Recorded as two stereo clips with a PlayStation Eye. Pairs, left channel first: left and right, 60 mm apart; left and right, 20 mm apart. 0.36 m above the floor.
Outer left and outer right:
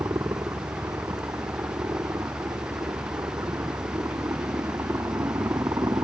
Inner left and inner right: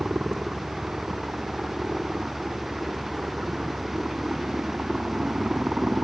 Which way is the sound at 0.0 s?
60° right (ahead or behind).